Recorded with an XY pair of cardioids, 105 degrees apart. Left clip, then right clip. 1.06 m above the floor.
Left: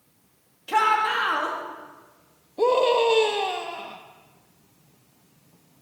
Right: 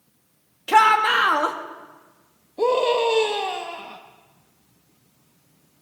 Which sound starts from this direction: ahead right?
A shout, at 0.7 s.